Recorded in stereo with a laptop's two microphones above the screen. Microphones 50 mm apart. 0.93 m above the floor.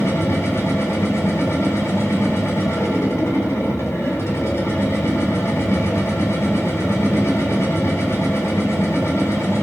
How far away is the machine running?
About 5 m.